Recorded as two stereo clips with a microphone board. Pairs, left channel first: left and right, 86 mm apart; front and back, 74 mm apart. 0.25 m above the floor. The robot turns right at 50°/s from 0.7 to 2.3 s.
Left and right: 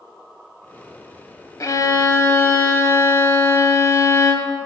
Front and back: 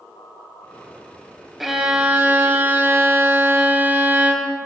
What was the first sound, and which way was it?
A violin, 90° left.